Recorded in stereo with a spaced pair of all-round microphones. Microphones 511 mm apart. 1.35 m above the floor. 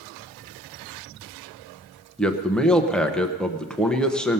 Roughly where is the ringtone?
I don't hear a ringtone.